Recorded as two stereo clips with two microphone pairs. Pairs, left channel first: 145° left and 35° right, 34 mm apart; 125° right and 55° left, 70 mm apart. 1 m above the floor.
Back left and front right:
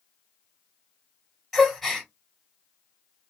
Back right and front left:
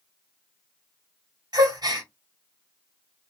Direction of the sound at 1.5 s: 60° left.